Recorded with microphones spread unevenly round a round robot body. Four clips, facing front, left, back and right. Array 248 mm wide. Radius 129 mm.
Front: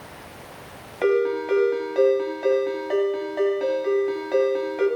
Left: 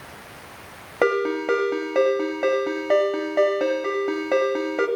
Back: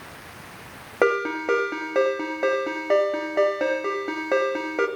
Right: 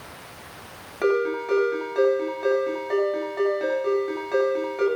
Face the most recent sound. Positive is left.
turn(degrees=145)